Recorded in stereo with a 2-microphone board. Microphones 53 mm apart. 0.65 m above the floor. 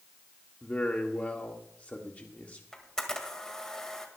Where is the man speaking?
30° left (ahead or behind), 1.2 m.